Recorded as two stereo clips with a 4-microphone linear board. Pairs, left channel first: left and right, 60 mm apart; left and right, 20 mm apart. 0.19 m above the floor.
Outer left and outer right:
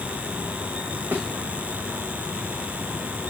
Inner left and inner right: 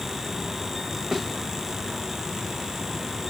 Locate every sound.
1.1 s a thud: 45° right (ahead or behind), 5.5 m